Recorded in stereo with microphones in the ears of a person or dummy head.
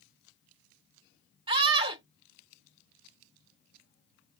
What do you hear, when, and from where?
1.5 s a scream: 25° right (ahead or behind), 0.8 m